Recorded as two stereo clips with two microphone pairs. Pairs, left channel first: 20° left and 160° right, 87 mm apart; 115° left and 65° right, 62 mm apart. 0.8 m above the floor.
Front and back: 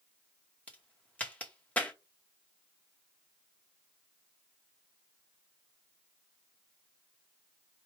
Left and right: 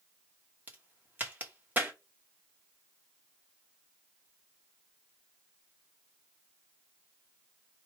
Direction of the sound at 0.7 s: 35° right.